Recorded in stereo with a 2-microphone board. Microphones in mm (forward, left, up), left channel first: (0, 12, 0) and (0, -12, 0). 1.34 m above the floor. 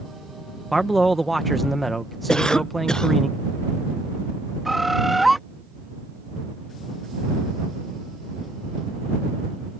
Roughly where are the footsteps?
I don't hear footsteps.